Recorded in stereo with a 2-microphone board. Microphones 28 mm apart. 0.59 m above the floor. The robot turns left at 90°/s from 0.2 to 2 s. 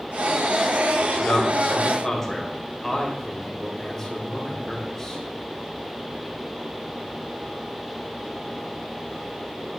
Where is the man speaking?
60° left (ahead or behind), 2 m; by 5.2 s 20° left (ahead or behind), 2 m.